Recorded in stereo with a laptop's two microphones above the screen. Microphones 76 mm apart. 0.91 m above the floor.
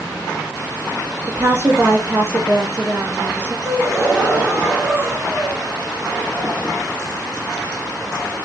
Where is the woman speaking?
30° right (ahead or behind), 1.0 m.